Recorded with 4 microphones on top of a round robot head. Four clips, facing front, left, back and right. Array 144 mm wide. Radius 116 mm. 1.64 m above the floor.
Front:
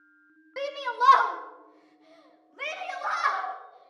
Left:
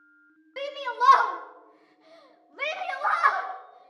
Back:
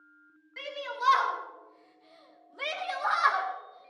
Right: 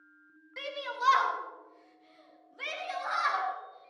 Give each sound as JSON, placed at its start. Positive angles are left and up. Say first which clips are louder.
{"t": 0.6, "sound": "a shout", "louder": "left 9 dB, front 8 dB", "azimuth_deg": 30, "distance_m": 1.6}